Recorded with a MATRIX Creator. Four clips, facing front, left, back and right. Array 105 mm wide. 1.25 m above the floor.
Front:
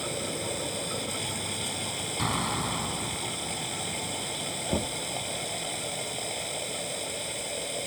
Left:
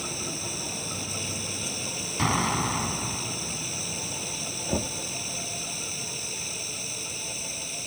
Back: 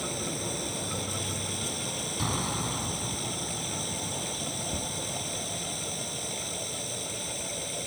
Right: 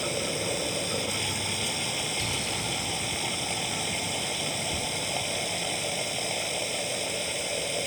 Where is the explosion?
80° left.